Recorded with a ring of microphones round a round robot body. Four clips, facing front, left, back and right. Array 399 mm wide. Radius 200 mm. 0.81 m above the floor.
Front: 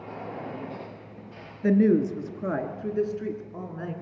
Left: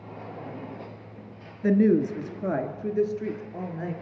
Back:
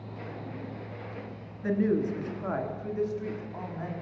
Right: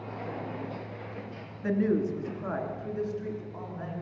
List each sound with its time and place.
1.6 s a woman speaking: 45° left, 1.5 m; by 3.9 s 55° left, 3 m